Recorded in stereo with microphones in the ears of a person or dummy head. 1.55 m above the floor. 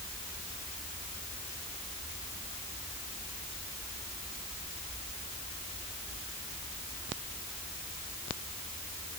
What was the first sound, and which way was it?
Only background noise.